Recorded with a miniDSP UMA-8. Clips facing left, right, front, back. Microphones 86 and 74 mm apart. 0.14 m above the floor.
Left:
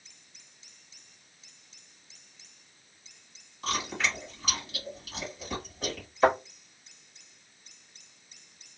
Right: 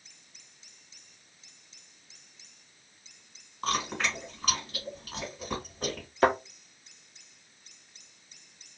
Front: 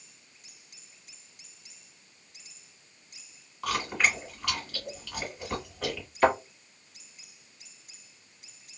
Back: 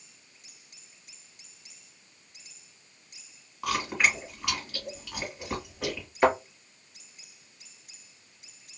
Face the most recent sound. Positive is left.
turn(degrees=-105)